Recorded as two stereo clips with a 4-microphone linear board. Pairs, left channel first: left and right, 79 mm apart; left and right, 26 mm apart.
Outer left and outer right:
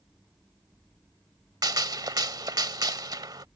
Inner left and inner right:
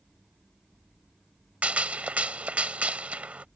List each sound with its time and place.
1.6 s a gunshot: 60° right (ahead or behind)